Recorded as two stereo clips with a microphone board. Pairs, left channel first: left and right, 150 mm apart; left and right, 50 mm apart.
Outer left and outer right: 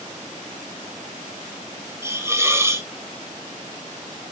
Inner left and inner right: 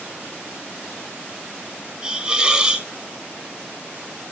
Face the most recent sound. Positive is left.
turn(degrees=-20)  # may be behind; listen again after turning